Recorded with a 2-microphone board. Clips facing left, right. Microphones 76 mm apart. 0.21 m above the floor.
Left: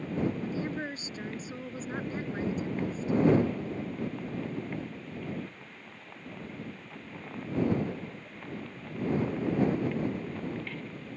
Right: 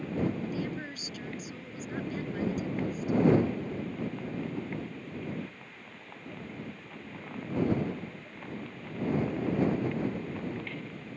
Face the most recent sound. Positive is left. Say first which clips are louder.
# left 1 dB
turn(degrees=30)  # may be behind; listen again after turning